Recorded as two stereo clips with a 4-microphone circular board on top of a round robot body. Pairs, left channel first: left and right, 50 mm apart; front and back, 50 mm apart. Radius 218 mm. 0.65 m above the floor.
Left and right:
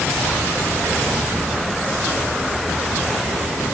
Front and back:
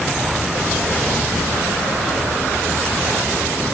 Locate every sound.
Only background noise.